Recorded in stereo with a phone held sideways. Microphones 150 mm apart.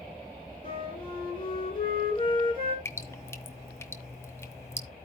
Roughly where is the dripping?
Centre.